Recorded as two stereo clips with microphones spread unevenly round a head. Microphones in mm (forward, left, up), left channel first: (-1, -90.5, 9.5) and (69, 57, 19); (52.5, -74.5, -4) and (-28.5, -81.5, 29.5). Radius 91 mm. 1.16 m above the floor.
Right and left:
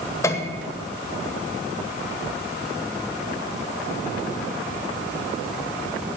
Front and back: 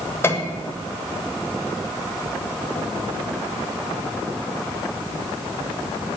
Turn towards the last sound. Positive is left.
turn(degrees=-45)